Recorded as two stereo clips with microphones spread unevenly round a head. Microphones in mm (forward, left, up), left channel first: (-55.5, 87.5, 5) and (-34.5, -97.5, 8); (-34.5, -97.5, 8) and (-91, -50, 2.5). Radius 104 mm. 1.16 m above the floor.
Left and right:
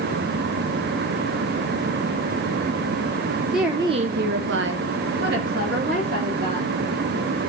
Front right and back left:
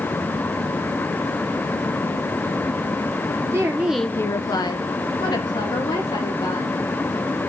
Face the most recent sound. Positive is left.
turn(degrees=-35)